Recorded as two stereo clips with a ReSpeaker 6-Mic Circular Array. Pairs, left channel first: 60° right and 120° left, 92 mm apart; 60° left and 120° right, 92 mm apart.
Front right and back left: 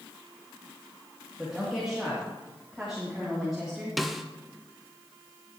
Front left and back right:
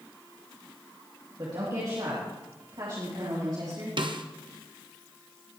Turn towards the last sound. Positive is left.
turn(degrees=-150)